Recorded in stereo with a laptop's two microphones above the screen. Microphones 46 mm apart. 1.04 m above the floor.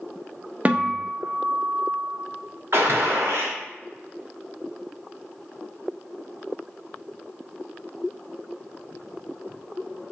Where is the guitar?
30° right (ahead or behind), 0.5 m.